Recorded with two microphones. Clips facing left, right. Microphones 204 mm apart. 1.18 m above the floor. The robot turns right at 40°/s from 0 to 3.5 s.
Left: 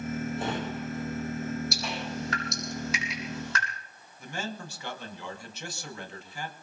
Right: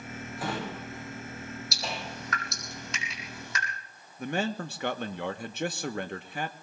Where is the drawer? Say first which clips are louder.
Left 3 dB; 25° left (ahead or behind), 9.5 m; by 2.1 s 45° right (ahead or behind), 9.5 m.